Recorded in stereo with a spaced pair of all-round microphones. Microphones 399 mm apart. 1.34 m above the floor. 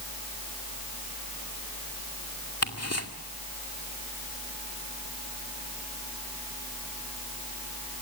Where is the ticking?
40° left (ahead or behind), 2 m.